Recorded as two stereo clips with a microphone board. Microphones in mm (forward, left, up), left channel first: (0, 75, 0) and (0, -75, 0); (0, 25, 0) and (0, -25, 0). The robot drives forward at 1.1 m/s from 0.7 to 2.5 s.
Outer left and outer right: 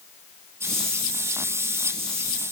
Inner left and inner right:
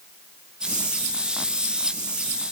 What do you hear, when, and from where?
Only background noise.